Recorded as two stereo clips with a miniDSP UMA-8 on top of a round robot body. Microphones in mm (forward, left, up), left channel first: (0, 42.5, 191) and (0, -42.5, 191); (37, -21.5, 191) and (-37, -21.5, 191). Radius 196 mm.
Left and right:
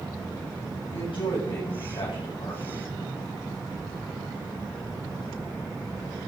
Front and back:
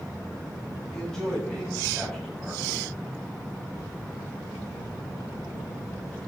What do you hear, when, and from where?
0.9 s a man speaking: 85° left, 7 m